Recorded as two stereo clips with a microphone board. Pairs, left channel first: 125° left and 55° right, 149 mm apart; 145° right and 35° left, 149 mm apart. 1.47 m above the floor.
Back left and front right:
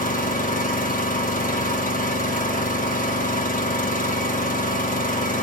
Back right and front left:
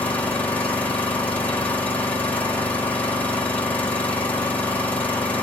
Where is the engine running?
135° left, 1.2 m.